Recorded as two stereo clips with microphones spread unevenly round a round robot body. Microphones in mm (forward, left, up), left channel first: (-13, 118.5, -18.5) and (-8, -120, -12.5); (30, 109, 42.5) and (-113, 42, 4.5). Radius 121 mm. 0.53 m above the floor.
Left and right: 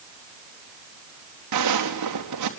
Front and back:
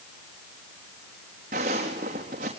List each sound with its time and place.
1.5 s footsteps: 90° right, 3.5 m